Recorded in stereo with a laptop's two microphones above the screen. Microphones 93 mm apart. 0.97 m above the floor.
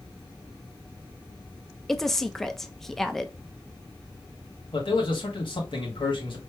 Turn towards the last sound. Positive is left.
turn(degrees=60)  # may be behind; listen again after turning